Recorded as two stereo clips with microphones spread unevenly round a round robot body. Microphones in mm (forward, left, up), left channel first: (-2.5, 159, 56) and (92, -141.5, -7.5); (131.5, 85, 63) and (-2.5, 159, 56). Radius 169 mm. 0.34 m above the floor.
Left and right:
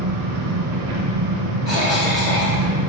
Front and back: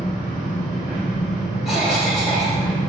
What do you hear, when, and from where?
0.0 s an engine running: 95° right, 1.8 m
1.6 s a cough: 65° left, 1.8 m